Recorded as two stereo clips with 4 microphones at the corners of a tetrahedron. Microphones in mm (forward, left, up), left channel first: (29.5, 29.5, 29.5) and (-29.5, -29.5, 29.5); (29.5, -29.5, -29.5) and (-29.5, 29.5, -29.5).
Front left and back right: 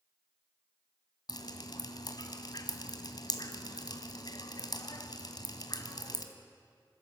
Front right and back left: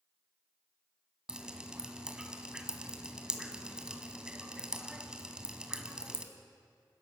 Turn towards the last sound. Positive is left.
turn(degrees=55)